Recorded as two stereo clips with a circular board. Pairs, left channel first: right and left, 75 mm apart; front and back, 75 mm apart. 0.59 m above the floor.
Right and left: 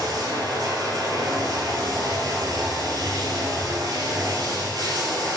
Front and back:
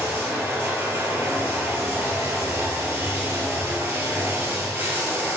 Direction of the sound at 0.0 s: 120° left.